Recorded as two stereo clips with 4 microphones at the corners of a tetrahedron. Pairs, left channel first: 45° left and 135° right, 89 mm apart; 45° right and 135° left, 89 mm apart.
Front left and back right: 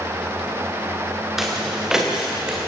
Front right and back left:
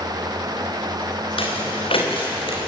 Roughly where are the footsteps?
Ahead right.